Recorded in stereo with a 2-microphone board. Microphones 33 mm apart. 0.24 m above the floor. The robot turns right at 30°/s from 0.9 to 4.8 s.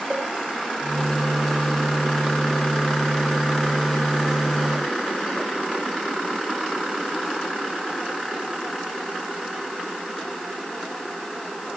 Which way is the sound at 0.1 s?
35° right (ahead or behind).